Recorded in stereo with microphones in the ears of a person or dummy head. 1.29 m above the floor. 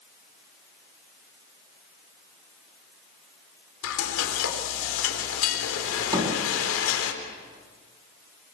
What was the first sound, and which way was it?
Frying, 85° left.